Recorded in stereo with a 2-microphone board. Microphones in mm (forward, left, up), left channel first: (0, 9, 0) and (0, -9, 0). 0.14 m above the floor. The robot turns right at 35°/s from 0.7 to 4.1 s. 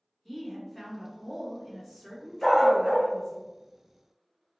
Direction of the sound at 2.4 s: 15° left (ahead or behind).